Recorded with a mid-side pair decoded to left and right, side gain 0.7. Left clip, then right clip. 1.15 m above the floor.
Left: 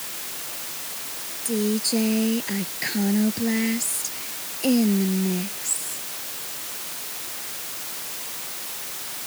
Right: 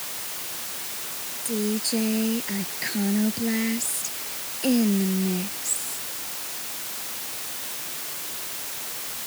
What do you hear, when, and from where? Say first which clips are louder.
1.4 s a woman speaking: left 3 dB; 15° left; by 6.1 s 5° left